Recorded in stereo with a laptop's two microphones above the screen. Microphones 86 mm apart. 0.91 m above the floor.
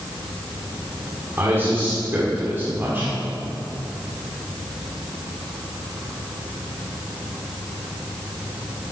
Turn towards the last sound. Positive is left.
turn(degrees=-25)  # may be behind; listen again after turning